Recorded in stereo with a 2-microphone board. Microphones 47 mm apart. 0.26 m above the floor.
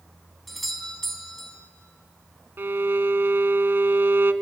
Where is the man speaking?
I don't hear a man speaking.